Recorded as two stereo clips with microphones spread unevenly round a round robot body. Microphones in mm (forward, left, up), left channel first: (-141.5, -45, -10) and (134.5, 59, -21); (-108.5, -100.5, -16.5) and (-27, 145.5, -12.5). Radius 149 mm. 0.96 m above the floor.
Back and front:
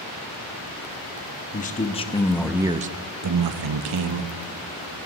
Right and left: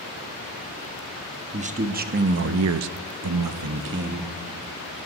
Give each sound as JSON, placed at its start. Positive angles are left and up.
{"t": 1.5, "sound": "a man speaking", "azimuth_deg": 135, "distance_m": 1.4}